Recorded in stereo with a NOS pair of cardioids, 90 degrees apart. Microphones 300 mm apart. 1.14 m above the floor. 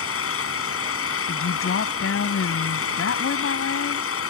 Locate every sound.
0.0 s an engine running: 45° left
1.3 s a woman speaking: 45° left